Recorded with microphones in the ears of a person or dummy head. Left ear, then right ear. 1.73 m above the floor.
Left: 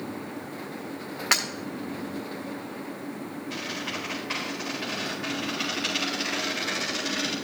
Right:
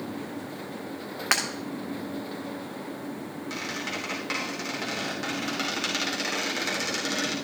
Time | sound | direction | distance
1.3 | breaking glass | 10° right (ahead or behind) | 1.9 m
3.5 | a squeak | 45° right (ahead or behind) | 3.5 m